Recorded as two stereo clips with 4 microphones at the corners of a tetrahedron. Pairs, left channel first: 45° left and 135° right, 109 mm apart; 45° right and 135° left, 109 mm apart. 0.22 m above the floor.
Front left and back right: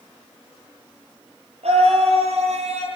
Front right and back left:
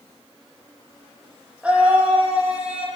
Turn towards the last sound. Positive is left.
turn(degrees=-145)